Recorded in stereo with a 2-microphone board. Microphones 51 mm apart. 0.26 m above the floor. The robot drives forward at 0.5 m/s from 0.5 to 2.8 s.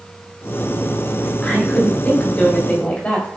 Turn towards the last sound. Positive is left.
turn(degrees=30)  # may be behind; listen again after turning